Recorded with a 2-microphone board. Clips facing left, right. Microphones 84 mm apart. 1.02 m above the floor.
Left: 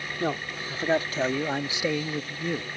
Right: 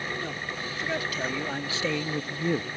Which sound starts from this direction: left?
A man speaking, at 0.2 s.